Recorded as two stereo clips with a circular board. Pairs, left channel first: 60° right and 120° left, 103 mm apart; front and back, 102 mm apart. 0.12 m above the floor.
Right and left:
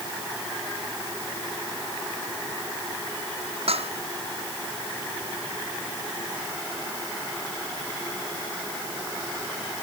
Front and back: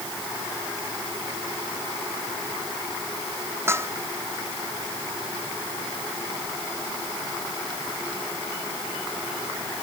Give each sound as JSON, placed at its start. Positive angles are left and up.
{"t": 3.7, "sound": "dishes clattering", "azimuth_deg": 115}